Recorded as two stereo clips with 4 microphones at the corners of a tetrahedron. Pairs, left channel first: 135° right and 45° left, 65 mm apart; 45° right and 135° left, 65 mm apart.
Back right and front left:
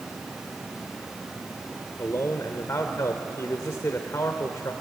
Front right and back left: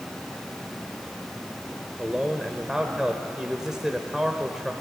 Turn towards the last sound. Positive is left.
turn(degrees=-145)